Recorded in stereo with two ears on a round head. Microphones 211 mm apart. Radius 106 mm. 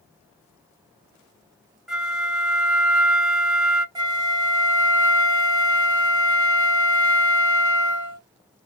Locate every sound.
1.9 s a flute: centre (ahead or behind), 0.8 m
4.0 s a flute: 20° right (ahead or behind), 0.5 m